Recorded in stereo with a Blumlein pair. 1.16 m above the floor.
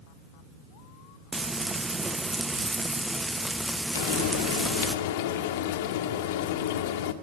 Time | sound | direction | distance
1.3 | frying | 10° right | 0.8 m
4.0 | frying | 55° left | 1.8 m